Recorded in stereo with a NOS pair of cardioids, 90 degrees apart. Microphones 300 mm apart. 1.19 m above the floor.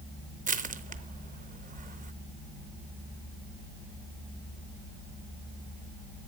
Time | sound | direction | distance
0.5 | crushing | 25° right | 0.8 m